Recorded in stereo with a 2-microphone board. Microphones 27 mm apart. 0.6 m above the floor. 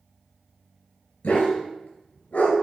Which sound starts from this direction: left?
A dog barking, at 1.2 s.